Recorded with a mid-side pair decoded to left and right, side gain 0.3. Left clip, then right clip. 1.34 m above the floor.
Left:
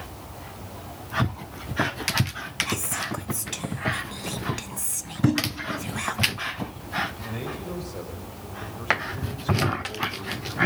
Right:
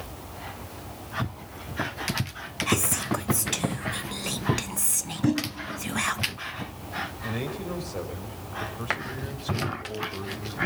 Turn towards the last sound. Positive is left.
turn(degrees=-35)